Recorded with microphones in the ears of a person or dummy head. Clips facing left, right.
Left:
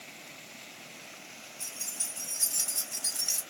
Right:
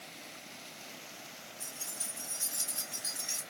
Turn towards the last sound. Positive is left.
turn(degrees=65)  # may be behind; listen again after turning